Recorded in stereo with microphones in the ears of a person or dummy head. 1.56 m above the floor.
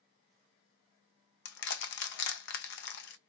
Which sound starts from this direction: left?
Crushing, at 1.4 s.